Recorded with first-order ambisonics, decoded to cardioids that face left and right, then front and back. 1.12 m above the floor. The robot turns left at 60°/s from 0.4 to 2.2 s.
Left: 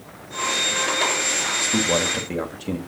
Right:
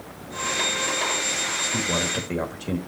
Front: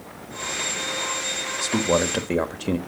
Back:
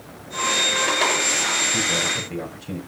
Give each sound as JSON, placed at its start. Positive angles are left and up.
{"t": 1.6, "sound": "a man speaking", "azimuth_deg": 40, "distance_m": 1.6}